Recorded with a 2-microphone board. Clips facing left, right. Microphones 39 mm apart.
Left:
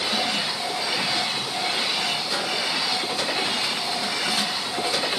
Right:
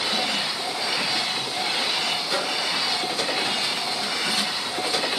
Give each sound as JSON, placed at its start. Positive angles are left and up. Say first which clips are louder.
{"t": 2.3, "sound": "a microwave", "louder": "right 1 dB", "side_deg": 0, "distance_m": 9.0}